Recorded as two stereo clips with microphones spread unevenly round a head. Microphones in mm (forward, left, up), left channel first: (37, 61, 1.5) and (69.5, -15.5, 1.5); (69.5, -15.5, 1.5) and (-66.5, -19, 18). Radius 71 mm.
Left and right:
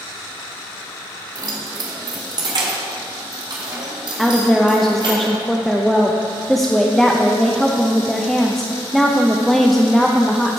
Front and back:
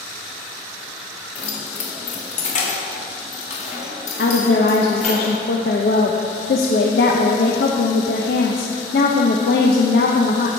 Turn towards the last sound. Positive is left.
turn(degrees=25)